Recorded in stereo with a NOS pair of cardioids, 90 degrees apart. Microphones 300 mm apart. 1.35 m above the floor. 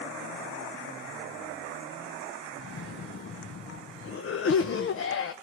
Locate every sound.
2.6 s a cough: 45° left, 1.0 m